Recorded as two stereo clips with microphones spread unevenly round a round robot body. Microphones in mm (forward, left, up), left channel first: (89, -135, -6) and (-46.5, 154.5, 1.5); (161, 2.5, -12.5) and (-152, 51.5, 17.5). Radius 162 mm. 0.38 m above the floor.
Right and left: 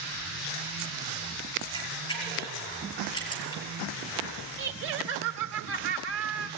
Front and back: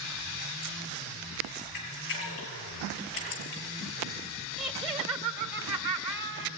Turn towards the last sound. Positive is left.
turn(degrees=100)